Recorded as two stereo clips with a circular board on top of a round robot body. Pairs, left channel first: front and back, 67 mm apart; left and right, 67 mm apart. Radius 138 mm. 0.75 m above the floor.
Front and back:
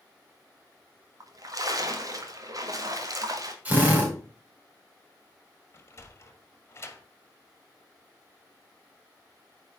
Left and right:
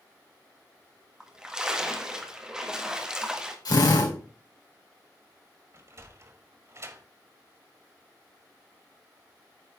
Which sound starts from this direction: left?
A drill, at 3.6 s.